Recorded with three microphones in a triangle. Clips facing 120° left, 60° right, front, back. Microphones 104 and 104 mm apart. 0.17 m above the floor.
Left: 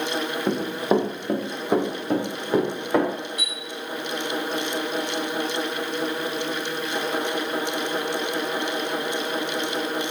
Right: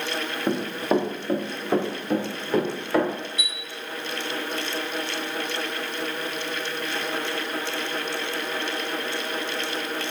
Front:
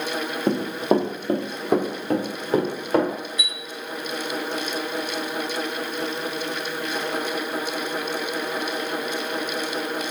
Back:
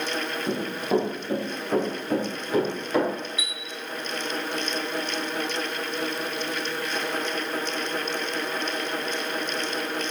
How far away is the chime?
About 1.2 m.